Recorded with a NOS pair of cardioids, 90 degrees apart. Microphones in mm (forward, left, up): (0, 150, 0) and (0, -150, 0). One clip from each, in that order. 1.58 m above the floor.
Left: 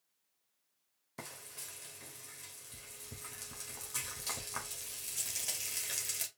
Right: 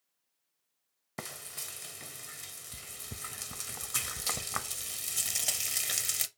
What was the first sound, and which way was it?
Frying, 40° right.